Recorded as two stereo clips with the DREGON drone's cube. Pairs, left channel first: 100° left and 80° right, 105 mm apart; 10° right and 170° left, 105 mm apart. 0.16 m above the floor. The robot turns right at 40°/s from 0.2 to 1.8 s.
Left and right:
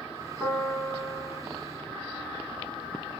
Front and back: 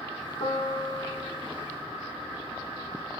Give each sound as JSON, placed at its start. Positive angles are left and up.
{"t": 0.4, "sound": "a piano", "azimuth_deg": 5, "distance_m": 4.5}